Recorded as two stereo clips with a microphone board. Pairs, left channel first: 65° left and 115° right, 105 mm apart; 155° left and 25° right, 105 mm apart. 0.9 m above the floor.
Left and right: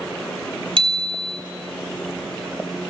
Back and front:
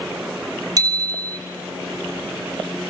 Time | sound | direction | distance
0.8 | a bicycle bell | 75° right | 2.5 m